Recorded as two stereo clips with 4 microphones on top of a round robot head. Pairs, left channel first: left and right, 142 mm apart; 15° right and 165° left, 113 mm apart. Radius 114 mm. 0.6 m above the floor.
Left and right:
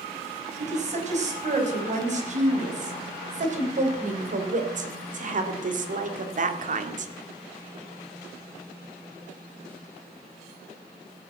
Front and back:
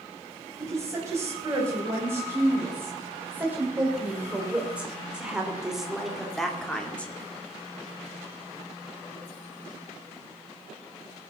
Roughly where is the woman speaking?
Behind right.